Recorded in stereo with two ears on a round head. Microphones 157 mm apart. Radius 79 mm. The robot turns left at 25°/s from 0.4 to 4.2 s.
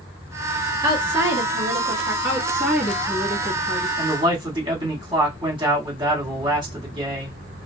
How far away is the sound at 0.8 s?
About 1.2 m.